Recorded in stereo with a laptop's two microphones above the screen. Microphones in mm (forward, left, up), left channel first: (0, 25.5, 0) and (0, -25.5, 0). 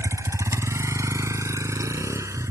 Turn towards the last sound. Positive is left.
turn(degrees=-85)